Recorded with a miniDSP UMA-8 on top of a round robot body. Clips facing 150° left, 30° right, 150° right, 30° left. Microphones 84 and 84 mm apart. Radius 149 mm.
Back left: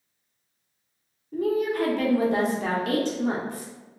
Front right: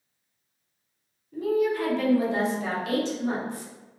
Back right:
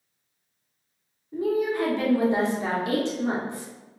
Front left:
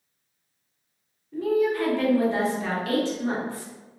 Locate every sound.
1.3 s a woman speaking: 145° left, 0.9 m